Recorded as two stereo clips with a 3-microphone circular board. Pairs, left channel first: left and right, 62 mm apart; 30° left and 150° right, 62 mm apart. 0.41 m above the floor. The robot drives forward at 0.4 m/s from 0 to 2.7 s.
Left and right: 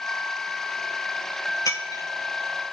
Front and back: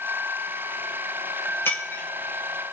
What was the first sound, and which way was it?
Breaking glass, 80° left.